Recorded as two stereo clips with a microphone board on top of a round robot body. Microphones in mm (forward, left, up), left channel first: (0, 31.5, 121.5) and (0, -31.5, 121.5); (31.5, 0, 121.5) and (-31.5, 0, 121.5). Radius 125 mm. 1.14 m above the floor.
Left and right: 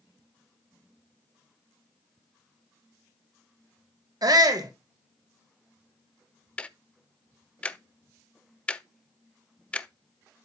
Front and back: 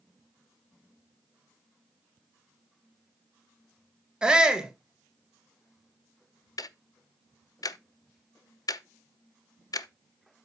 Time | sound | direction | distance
4.2 | a shout | 100° right | 1.7 m
6.6 | ticking | 20° left | 0.6 m